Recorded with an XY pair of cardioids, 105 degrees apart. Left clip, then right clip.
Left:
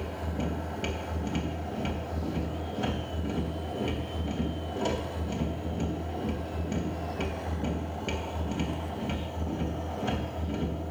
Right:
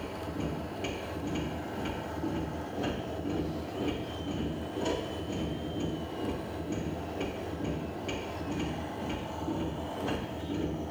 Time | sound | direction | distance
0.0 | a machine running | 50° left | 3 m